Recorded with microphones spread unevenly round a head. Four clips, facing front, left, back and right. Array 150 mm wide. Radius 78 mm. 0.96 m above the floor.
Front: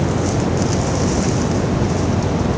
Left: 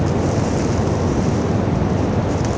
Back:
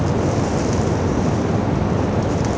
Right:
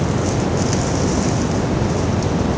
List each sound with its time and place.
Only background noise.